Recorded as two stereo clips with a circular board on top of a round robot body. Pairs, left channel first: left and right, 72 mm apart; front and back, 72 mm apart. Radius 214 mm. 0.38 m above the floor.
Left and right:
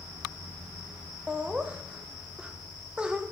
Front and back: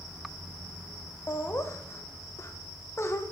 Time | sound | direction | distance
1.3 | laughter | 20° right | 0.8 m